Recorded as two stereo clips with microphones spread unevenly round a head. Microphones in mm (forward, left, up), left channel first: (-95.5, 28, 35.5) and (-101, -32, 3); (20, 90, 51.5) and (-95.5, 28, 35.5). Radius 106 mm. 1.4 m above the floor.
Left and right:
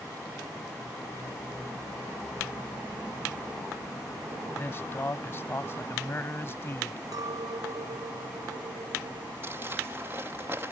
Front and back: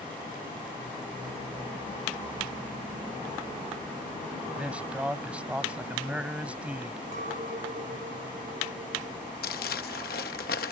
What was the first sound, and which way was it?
A man speaking, 125° left.